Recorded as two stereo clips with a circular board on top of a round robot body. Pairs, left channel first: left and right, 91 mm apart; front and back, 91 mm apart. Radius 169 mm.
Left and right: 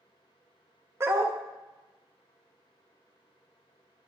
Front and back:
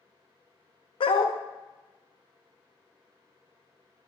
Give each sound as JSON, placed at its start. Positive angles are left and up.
{"t": 1.0, "sound": "a dog barking", "azimuth_deg": -25, "distance_m": 0.9}